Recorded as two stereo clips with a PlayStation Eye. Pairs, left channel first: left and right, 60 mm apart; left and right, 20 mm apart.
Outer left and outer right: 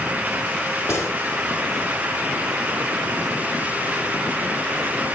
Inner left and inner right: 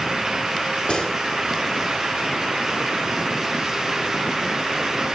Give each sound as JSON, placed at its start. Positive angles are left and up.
{"t": 0.9, "sound": "a gunshot", "side_deg": 55, "distance_m": 2.5}